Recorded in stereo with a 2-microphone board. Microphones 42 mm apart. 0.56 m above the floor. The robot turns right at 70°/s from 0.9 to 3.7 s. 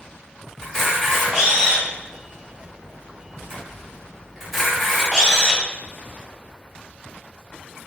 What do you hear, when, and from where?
0.6 s a camera shutter: 15° left (ahead or behind), 1.4 m; by 5.6 s centre (ahead or behind), 1.4 m